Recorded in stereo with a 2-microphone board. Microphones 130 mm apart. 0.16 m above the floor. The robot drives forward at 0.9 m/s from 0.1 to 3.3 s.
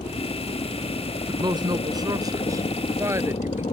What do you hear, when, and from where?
0.0 s a helicopter: 55° left (ahead or behind); by 3.7 s 50° left (ahead or behind)
1.3 s a woman speaking: 35° right (ahead or behind); by 3.6 s 20° right (ahead or behind)